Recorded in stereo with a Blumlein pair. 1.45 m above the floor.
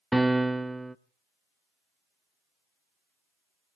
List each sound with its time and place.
0.1 s a piano: 5° right, 0.6 m